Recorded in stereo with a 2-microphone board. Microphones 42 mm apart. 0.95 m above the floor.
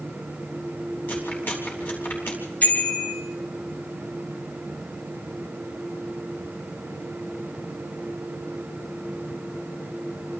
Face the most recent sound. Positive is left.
turn(degrees=35)  # may be behind; listen again after turning